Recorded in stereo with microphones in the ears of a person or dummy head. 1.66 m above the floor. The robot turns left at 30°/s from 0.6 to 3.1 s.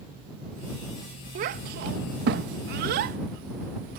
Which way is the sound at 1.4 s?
45° right (ahead or behind).